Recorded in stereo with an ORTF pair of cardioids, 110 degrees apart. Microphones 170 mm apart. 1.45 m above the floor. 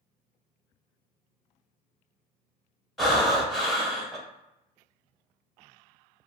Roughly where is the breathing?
Ahead.